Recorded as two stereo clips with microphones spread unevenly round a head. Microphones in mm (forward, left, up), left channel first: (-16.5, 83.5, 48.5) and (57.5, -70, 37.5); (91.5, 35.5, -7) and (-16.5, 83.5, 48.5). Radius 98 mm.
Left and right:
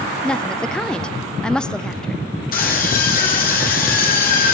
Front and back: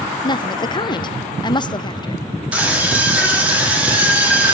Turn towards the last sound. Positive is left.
turn(degrees=75)